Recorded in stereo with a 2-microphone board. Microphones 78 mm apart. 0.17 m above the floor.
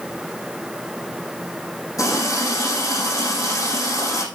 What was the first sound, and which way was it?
A running tap, 50° left (ahead or behind).